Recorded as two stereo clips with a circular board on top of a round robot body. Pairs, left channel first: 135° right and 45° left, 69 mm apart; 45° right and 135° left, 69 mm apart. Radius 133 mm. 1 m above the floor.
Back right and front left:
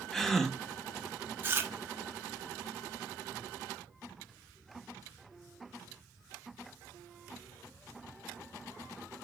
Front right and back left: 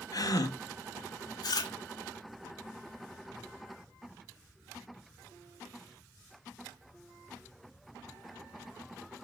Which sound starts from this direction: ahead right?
A gasp, at 0.1 s.